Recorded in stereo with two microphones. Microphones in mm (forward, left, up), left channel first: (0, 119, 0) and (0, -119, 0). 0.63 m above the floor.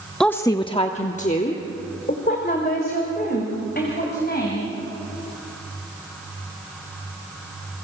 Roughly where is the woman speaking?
Centre.